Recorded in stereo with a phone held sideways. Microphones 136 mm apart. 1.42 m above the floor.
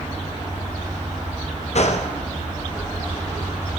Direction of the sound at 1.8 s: 55° left (ahead or behind).